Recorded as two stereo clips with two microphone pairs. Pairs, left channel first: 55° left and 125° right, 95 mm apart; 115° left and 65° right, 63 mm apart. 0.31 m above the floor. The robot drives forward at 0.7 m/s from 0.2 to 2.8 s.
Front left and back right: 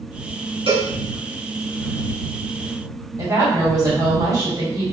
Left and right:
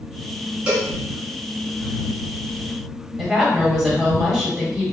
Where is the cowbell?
135° right, 2 m.